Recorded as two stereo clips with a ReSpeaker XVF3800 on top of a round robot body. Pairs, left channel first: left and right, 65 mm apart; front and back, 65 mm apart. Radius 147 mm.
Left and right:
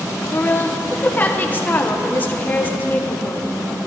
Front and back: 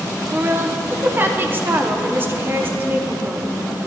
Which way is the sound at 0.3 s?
140° left.